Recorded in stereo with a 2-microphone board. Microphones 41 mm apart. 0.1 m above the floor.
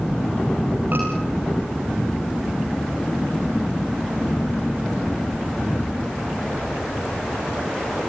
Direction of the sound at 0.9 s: 50° right (ahead or behind).